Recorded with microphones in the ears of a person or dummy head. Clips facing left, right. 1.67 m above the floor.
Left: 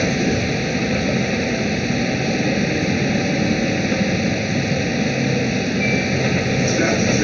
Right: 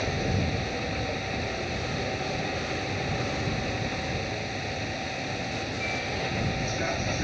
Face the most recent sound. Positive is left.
turn(degrees=70)  # may be behind; listen again after turning